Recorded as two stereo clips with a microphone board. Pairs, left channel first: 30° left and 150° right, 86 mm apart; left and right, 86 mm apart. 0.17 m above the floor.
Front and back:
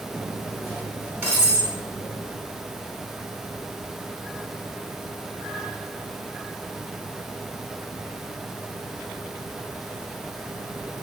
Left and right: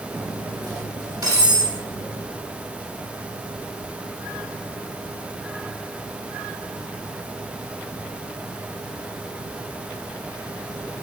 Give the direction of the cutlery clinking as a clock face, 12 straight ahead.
3 o'clock.